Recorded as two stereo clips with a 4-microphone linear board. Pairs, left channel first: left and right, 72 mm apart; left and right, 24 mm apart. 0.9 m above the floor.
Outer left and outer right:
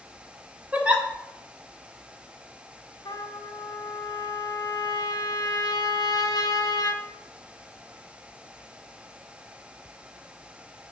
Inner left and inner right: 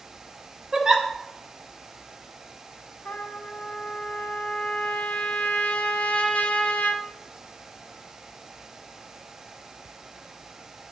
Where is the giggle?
20° right (ahead or behind), 1.1 m.